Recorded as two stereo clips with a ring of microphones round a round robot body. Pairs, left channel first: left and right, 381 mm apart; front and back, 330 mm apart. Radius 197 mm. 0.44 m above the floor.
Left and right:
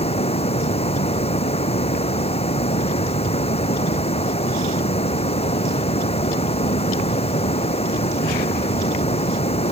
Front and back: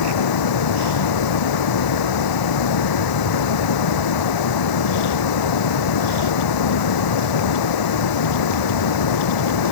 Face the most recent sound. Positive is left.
turn(degrees=15)